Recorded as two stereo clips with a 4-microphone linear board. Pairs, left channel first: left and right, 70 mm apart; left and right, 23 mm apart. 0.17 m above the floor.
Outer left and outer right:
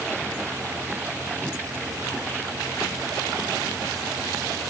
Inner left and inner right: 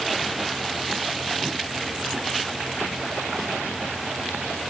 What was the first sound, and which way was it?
Only background noise.